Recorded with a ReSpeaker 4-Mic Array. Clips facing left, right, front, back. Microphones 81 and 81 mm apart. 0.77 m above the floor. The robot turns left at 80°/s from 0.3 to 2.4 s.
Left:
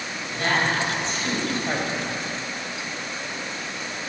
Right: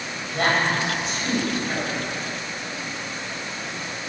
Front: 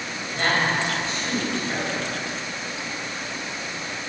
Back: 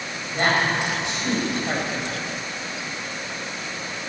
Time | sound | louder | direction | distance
0.3 | a woman speaking | right 2 dB, back 2 dB | 115° right | 5 m